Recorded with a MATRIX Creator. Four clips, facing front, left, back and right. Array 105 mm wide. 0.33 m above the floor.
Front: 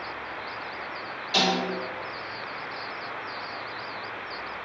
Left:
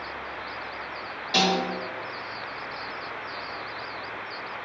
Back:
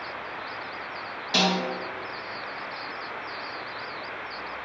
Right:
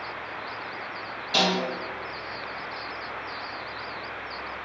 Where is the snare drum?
145° left, 1.8 m.